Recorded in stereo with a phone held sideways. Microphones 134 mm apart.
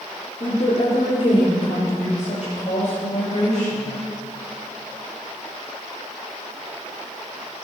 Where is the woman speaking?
50° left (ahead or behind), 3.5 m; by 3.9 s 60° left (ahead or behind), 7.5 m.